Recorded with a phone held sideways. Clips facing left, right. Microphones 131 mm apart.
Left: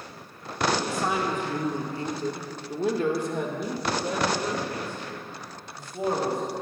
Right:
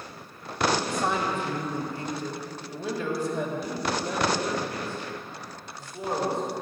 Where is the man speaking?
5° left (ahead or behind), 1.9 m; by 6.4 s 85° left, 4 m.